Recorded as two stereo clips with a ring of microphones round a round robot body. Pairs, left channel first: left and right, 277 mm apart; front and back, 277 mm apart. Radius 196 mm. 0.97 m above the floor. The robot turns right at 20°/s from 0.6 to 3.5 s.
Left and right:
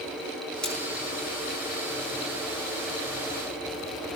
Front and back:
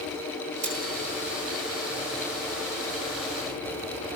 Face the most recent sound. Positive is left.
turn(degrees=-125)